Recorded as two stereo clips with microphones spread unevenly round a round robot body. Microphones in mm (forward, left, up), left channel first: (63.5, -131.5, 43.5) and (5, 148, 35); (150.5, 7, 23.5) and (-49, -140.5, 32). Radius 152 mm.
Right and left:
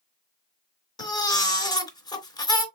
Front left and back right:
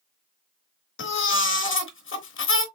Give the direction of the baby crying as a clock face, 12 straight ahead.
12 o'clock.